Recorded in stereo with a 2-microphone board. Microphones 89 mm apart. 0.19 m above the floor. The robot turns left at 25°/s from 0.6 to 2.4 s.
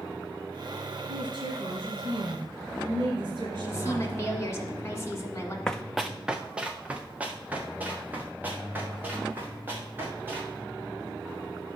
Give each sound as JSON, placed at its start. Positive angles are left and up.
{"t": 1.1, "sound": "a woman speaking", "azimuth_deg": -65, "distance_m": 2.5}
{"t": 3.5, "sound": "a woman speaking", "side_deg": 30, "distance_m": 1.4}
{"t": 5.7, "sound": "running footsteps", "side_deg": 10, "distance_m": 0.5}